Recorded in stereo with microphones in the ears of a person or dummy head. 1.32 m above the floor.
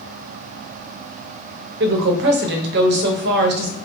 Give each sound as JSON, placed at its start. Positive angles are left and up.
{"t": 1.8, "sound": "a woman speaking", "side_deg": -60, "distance_m": 0.7}